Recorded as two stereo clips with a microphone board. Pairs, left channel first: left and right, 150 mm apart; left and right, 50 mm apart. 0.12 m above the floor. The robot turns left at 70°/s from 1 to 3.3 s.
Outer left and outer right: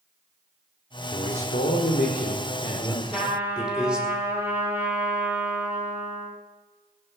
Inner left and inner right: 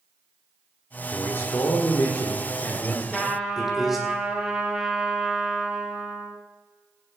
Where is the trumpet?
Centre (ahead or behind), 3 m; by 6.4 s 15° right (ahead or behind), 3 m.